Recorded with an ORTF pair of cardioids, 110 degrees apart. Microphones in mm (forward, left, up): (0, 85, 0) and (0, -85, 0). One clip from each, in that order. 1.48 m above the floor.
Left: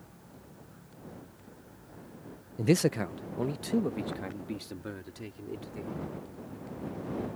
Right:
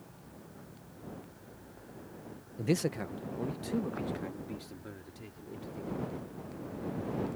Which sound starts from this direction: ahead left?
A man speaking, at 2.6 s.